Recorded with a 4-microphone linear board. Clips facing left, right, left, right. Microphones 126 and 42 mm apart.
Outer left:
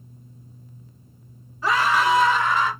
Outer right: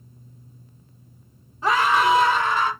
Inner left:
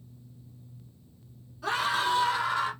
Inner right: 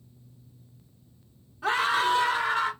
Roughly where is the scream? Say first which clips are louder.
Outer right 1 dB, inner right 3 dB; right.